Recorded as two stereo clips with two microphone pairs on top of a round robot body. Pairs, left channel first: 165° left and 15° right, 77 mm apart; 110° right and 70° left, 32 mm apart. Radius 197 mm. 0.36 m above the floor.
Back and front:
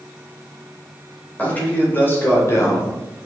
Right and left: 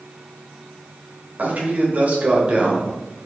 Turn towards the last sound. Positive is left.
turn(degrees=125)